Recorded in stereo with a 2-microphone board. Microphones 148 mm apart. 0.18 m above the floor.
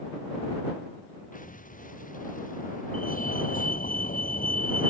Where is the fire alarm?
70° left (ahead or behind).